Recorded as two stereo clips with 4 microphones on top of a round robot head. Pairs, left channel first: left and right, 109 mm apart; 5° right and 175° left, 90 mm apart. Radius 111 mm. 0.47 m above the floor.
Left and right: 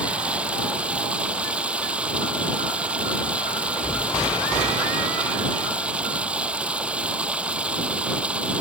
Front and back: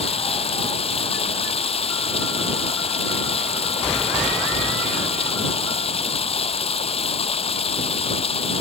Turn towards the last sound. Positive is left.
turn(degrees=-10)